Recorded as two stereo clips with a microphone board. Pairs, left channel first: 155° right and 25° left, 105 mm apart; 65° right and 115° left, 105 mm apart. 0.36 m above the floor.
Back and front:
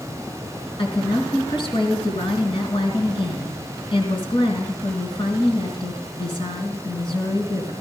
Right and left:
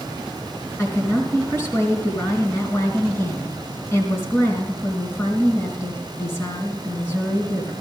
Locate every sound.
0.8 s a woman speaking: 125° right, 4 m